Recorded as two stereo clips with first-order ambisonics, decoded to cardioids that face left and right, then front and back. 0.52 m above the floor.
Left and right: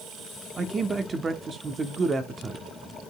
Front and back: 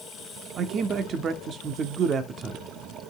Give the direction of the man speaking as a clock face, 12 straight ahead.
5 o'clock.